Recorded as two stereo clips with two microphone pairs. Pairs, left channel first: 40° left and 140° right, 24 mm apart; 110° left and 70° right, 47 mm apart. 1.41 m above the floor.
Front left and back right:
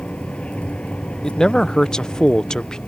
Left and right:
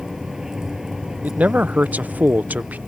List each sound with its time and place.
0.0 s a vehicle: 10° left
1.2 s a man speaking: 15° right